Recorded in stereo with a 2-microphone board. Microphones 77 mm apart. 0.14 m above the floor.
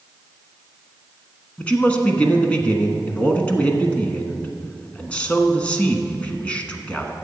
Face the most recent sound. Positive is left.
turn(degrees=15)  # may be behind; listen again after turning